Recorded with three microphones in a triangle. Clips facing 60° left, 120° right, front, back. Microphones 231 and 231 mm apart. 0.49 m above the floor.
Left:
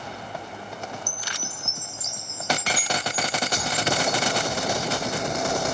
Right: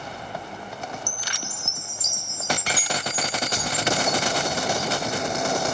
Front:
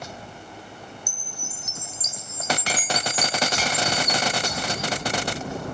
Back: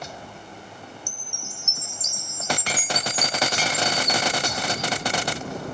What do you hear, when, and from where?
1.1 s a chime: 120° right